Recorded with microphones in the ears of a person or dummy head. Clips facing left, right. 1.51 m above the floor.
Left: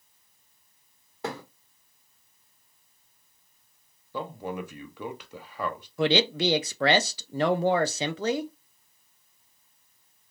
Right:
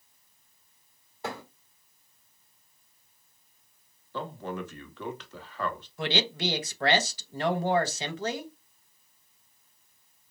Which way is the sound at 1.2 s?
70° left (ahead or behind).